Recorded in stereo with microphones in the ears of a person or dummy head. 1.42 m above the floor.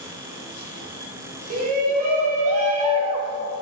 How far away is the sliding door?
No sliding door in this recording.